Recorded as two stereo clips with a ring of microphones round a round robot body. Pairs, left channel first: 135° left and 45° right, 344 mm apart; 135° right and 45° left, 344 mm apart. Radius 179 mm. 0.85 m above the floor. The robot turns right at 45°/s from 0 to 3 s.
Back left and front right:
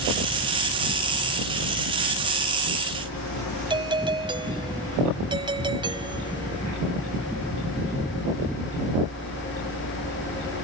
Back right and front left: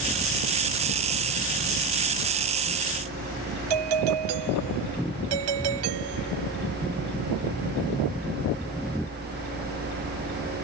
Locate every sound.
3.7 s a doorbell: 30° left